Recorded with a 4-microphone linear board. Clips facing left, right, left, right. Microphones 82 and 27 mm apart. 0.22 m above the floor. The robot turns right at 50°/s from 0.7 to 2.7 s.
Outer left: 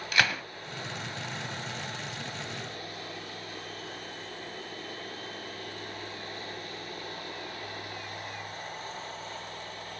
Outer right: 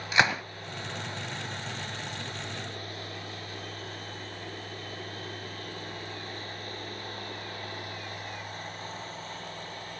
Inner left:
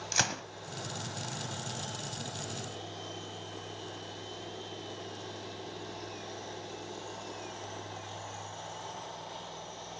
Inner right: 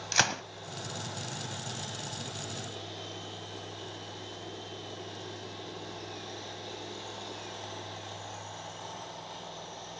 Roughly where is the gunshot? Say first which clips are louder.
Outer right 3 dB, inner right 4 dB; right.